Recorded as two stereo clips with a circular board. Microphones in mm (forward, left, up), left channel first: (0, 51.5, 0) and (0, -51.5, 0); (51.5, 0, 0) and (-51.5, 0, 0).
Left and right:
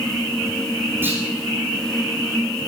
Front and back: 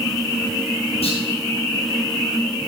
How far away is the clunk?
About 7 m.